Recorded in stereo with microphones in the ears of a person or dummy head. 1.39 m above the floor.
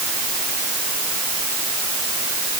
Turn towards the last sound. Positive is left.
No sound to turn to.